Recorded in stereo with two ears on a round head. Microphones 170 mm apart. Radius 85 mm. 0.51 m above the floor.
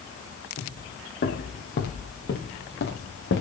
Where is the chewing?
I don't hear chewing.